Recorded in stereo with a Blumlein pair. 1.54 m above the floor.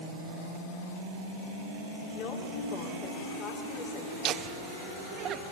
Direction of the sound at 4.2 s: 30° right.